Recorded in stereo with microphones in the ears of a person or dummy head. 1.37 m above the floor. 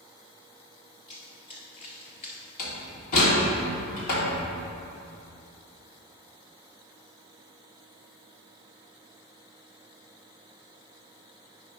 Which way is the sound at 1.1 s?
35° left (ahead or behind).